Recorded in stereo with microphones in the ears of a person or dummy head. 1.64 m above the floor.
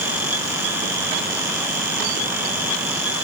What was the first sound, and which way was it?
Only background noise.